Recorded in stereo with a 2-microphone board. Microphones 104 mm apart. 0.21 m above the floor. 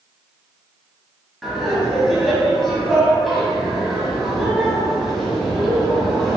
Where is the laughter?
Centre (ahead or behind), 1.5 m.